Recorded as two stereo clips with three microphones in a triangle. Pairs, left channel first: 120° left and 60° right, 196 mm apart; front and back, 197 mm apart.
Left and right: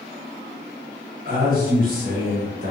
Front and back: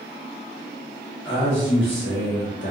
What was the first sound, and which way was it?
A man speaking, 15° right.